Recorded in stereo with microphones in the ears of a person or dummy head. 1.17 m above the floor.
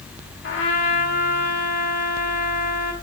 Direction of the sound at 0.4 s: 55° left (ahead or behind).